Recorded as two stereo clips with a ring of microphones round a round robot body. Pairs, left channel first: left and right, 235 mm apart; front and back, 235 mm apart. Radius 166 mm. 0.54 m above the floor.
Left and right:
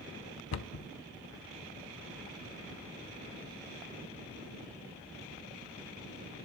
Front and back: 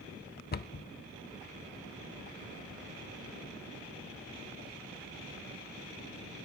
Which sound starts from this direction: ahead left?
A cupboard door, at 0.5 s.